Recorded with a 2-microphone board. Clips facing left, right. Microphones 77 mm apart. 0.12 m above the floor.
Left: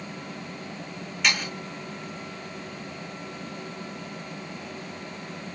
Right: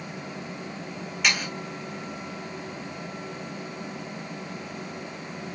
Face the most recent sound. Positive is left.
turn(degrees=-5)  # may be behind; listen again after turning